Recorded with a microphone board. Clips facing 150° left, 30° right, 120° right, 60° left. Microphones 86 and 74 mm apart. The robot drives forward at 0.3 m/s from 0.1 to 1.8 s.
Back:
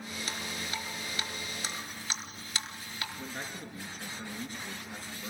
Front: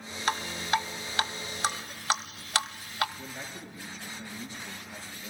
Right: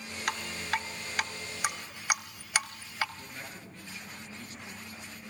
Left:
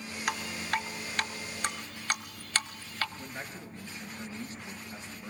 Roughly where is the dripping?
Ahead right.